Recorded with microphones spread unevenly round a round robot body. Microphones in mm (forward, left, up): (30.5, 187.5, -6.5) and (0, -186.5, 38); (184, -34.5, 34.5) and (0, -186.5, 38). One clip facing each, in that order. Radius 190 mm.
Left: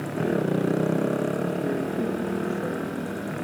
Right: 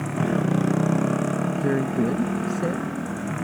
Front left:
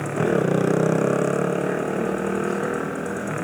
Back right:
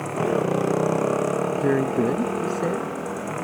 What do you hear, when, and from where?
0.0 s a motorcycle: 35° right
1.5 s a woman speaking: 115° right